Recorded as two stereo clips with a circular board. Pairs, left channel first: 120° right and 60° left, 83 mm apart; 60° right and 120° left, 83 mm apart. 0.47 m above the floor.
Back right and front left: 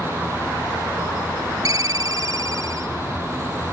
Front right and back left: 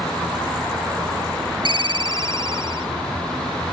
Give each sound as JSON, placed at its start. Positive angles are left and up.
{"t": 1.6, "sound": "a ringtone", "azimuth_deg": 105}